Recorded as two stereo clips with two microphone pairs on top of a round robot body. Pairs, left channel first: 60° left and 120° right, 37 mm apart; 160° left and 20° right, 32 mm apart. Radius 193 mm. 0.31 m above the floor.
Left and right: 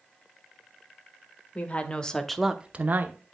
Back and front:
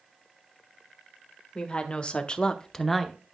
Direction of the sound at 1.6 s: 105° left.